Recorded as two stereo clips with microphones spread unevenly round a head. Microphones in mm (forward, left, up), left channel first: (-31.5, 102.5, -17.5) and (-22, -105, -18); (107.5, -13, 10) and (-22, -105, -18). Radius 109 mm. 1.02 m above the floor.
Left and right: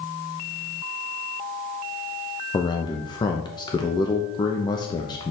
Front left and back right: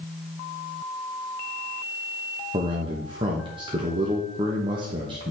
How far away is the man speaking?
About 0.8 m.